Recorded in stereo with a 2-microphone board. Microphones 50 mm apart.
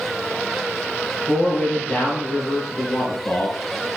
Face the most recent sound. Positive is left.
turn(degrees=30)  # may be behind; listen again after turning